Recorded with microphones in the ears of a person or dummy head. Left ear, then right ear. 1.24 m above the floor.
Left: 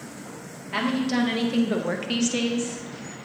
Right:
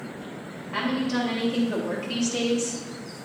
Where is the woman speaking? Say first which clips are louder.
Left 1 dB; 75° left (ahead or behind), 1.9 m; by 2.8 s 15° right (ahead or behind), 0.7 m.